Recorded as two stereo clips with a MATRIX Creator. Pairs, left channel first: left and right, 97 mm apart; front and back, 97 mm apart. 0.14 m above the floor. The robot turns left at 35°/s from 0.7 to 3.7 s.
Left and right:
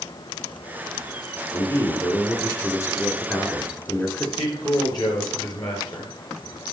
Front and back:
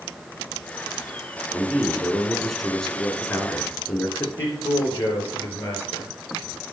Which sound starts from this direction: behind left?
A man speaking, at 1.5 s.